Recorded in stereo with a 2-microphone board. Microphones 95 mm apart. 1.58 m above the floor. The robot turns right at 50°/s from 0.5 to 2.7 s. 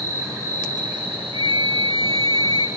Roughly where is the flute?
Behind right.